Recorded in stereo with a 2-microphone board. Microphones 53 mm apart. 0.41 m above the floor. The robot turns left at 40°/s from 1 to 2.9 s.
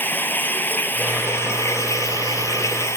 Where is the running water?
140° left; by 3.0 s 65° left.